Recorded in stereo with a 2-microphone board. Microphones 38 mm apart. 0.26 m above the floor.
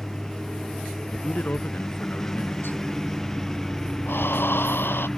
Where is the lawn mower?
15° left (ahead or behind); by 5.2 s 10° left (ahead or behind).